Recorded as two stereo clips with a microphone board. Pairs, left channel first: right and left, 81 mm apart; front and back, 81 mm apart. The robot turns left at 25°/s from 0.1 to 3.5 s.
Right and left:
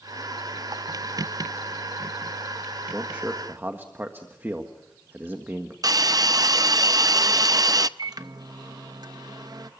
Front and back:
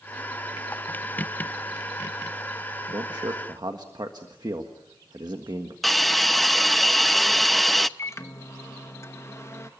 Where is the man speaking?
170° left, 1.6 m; by 5.7 s 155° left, 1.6 m.